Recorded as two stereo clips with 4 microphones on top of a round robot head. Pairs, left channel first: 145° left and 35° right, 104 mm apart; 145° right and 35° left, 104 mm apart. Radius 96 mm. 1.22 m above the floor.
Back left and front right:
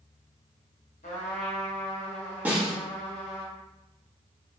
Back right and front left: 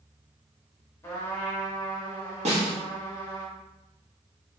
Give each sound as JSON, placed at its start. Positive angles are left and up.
{"t": 1.0, "sound": "a trumpet", "azimuth_deg": 140, "distance_m": 0.7}
{"t": 2.5, "sound": "a snare drum", "azimuth_deg": 40, "distance_m": 1.4}